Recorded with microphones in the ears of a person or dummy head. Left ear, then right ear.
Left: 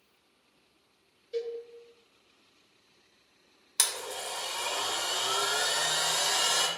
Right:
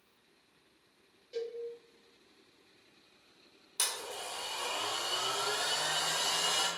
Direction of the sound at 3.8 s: 50° left (ahead or behind).